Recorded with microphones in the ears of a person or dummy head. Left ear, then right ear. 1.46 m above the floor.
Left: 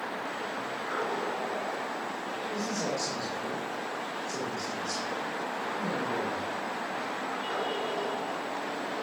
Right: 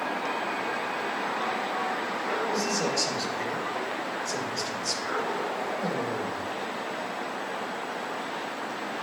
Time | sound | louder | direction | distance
2.5 | a man speaking | right 5 dB | 55° right (ahead or behind) | 3 m